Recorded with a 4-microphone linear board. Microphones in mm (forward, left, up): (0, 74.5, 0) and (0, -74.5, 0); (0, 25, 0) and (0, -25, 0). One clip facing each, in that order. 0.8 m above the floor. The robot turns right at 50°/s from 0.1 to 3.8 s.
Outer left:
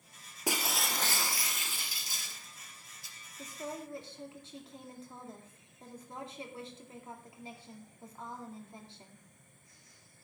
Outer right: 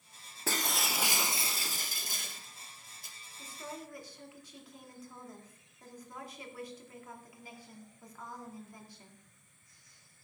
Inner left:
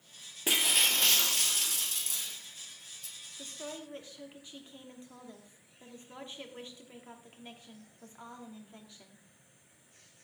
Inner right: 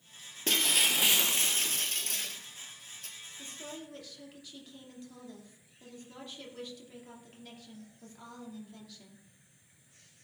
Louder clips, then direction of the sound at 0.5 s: Outer left 1 dB, even; 165° left.